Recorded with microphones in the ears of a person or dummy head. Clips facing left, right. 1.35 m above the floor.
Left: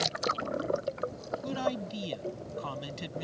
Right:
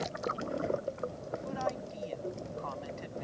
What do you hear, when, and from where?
1.4 s a man speaking: 60° left (ahead or behind)